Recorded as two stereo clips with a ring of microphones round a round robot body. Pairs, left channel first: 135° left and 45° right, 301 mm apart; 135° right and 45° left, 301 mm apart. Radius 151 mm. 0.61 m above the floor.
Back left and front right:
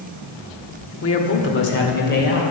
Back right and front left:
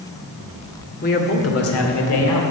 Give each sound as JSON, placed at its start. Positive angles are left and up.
{"t": 1.0, "sound": "a man speaking", "azimuth_deg": 170, "distance_m": 1.4}